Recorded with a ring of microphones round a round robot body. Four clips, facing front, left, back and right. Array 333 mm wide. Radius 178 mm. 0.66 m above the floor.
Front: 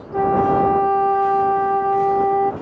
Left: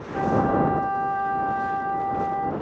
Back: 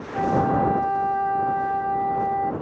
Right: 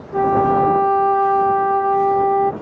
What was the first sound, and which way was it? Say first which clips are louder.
A flute: right 6 dB, front 5 dB; 55° right.